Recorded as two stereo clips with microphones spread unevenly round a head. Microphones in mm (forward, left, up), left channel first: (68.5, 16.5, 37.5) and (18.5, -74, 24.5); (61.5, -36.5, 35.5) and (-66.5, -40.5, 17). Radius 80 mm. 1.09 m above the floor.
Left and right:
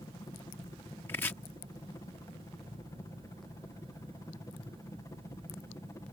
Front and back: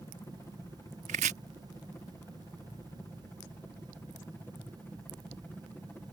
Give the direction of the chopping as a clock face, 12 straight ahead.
8 o'clock.